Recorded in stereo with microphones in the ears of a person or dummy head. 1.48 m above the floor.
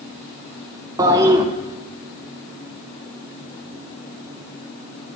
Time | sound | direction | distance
1.0 | a toilet flushing | 15° right (ahead or behind) | 0.5 m